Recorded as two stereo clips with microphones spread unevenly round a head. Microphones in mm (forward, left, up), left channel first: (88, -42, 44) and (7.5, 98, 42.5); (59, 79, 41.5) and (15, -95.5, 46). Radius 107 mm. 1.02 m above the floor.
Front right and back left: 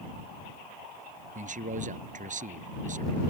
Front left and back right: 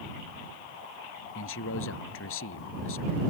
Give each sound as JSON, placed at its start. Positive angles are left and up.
{"t": 1.4, "sound": "a man speaking", "azimuth_deg": 80}